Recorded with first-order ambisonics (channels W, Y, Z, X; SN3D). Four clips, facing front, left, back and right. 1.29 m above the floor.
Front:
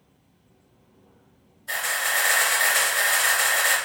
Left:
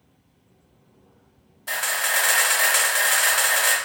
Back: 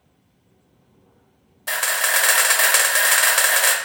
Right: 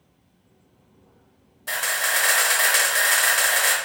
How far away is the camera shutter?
About 0.6 m.